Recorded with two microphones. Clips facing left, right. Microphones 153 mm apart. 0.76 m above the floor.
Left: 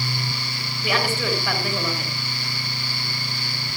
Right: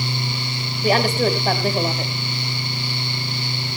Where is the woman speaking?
40° right (ahead or behind), 4.5 m.